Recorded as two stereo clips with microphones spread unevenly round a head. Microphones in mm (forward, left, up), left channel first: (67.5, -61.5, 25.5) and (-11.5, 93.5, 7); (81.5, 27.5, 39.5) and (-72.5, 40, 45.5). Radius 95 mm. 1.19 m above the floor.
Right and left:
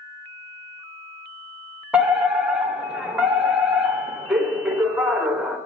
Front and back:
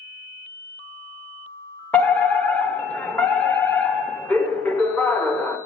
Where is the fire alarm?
55° left, 1.5 m.